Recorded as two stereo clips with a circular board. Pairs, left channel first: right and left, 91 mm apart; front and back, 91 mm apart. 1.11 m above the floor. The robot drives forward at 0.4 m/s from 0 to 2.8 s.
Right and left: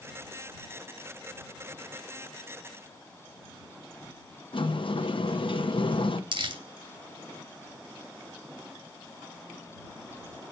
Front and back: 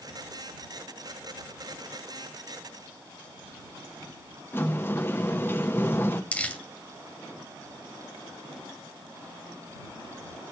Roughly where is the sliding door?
Ahead right.